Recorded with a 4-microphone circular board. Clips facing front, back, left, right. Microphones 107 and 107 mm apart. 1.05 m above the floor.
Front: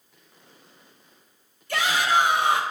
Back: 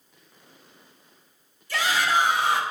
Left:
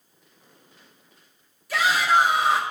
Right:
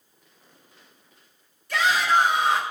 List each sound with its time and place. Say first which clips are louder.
1.7 s a shout: front 1 dB, left 1 dB; 5° left, 1.2 m